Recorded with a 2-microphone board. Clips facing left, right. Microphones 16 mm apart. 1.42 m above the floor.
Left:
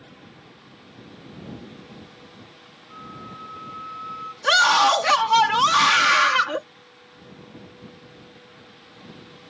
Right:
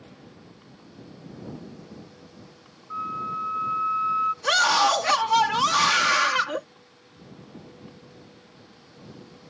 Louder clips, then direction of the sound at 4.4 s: Left 5 dB; 20° left (ahead or behind).